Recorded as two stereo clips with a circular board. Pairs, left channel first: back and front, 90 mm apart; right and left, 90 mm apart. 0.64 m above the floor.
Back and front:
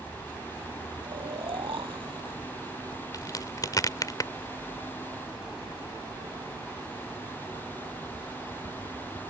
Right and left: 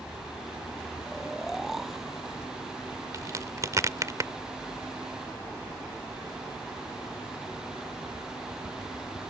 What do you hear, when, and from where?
1.0 s snoring: 5° left
3.1 s a crack: 140° left